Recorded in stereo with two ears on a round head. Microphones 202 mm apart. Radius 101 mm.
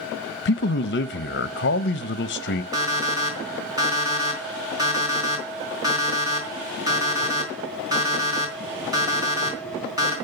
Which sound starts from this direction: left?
A man speaking, at 0.5 s.